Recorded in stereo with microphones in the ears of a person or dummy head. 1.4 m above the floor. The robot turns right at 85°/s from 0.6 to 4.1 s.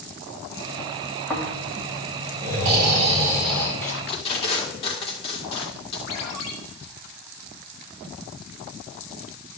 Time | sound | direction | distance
1.3 | snoring | 175° left | 2 m
3.8 | tape being pulled | 10° left (ahead or behind) | 1.5 m
6.1 | a ringtone | 80° left | 1.6 m